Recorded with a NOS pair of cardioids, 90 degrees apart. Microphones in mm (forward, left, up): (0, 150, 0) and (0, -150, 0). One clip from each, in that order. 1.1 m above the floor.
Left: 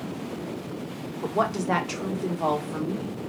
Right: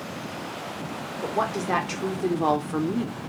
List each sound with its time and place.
1.2 s a woman speaking: 20° left, 1.2 m; by 3.2 s 45° right, 0.9 m